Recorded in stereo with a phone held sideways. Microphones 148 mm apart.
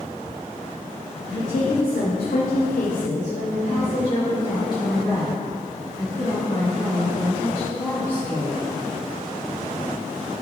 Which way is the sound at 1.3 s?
55° left (ahead or behind).